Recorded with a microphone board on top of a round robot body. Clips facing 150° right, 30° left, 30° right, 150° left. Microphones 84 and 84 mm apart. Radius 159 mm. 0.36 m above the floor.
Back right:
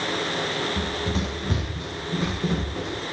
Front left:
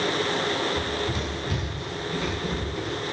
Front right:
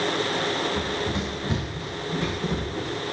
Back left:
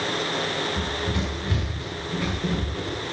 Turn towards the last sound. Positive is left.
turn(degrees=-95)